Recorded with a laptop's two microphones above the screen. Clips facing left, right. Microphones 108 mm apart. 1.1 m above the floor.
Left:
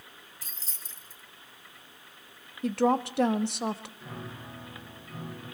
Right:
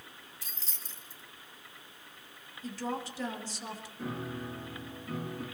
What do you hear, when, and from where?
0.4 s keys jangling: 40° left (ahead or behind), 2.5 m
2.6 s a woman speaking: 65° left (ahead or behind), 1.2 m
4.0 s a piano: 45° right (ahead or behind), 7.5 m